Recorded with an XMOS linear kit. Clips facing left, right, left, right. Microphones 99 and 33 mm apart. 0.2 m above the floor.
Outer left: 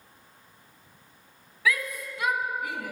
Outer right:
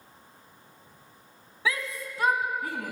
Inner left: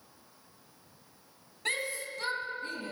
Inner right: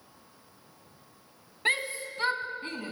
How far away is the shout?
About 1.5 m.